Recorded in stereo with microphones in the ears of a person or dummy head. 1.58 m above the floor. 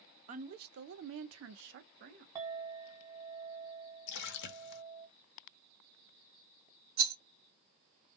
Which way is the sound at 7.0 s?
75° right (ahead or behind).